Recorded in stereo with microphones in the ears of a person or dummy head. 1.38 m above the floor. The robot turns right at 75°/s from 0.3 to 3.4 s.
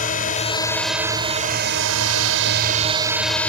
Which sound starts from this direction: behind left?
A drone, at 0.0 s.